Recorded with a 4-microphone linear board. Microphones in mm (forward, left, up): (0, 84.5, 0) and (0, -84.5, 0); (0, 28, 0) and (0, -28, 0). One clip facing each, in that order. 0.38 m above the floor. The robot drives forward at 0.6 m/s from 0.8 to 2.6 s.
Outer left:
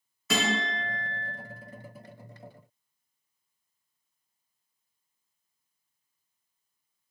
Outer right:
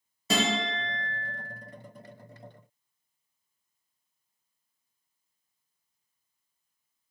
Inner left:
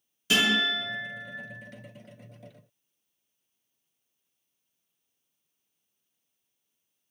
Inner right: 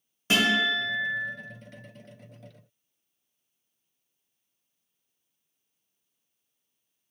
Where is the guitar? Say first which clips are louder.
Outer right 1 dB, inner right 1 dB; 30° right (ahead or behind), 1.2 m; by 1.3 s 35° right (ahead or behind), 1.1 m.